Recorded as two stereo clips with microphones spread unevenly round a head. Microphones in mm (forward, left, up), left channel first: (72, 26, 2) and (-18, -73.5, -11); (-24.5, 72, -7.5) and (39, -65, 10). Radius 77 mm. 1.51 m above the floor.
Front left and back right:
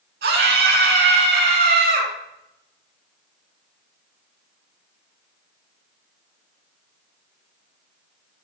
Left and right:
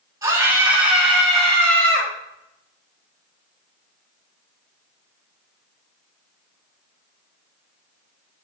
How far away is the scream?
About 4 m.